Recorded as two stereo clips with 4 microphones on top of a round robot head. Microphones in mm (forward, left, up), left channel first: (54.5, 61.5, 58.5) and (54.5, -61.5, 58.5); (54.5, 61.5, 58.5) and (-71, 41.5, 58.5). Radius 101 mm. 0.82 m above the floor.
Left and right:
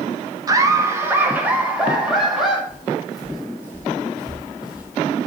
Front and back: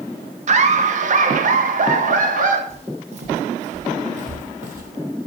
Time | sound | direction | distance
0.5 | laughter | 150° right | 1.5 m
2.7 | footsteps | 155° left | 2 m